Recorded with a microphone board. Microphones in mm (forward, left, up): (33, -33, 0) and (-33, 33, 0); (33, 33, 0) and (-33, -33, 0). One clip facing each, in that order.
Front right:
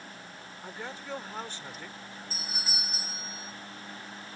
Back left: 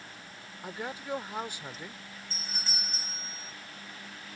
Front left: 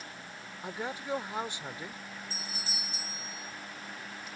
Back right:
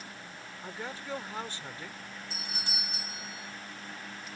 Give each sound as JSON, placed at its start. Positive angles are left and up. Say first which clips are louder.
{"t": 0.6, "sound": "a man speaking", "louder": "back left 3 dB, front left 4 dB", "azimuth_deg": 85}
{"t": 2.3, "sound": "a doorbell", "louder": "front right 1 dB, back right 1 dB", "azimuth_deg": -130}